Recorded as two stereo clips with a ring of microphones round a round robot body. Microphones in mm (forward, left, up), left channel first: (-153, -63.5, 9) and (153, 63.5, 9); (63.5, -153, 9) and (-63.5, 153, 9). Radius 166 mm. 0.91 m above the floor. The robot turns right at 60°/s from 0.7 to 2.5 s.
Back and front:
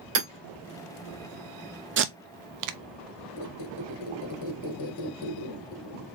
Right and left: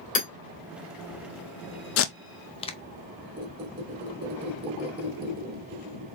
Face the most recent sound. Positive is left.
turn(degrees=175)